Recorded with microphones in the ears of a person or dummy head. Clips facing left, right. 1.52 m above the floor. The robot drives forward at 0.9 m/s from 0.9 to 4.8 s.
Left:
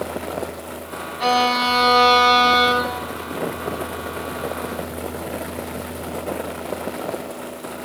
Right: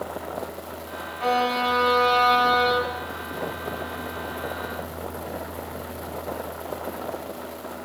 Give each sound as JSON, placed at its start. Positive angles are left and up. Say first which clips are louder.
{"t": 1.2, "sound": "a violin", "louder": "left 3 dB", "side_deg": 65, "distance_m": 4.0}